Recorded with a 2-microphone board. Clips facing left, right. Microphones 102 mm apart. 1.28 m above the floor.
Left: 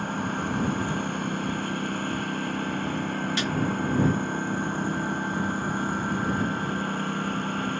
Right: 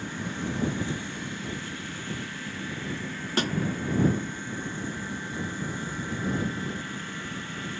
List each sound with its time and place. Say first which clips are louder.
0.0 s a lawn mower: left 5 dB; 55° left (ahead or behind)
3.4 s a snare drum: right 1 dB; 45° right (ahead or behind)